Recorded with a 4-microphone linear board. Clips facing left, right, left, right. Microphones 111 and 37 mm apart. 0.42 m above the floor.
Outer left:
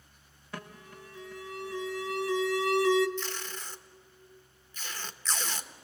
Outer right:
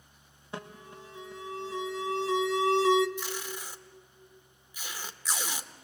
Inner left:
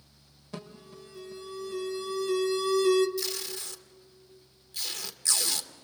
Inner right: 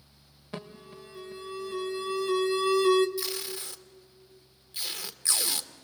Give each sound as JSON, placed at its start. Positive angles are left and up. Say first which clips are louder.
{"t": 0.5, "sound": "an alarm", "louder": "outer right 2 dB, inner right 2 dB", "side_deg": -25, "distance_m": 0.9}
{"t": 3.2, "sound": "tape being pulled", "louder": "outer right 1 dB, even", "side_deg": -10, "distance_m": 1.0}